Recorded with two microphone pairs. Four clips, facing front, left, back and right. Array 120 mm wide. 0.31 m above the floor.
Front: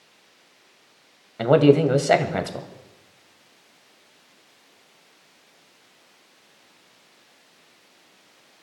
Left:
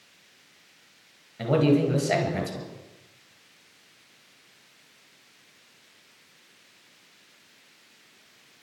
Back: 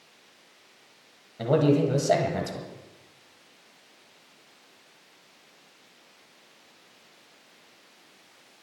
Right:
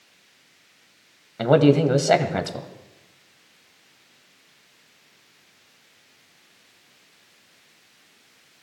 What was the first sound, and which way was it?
A man speaking, 50° right.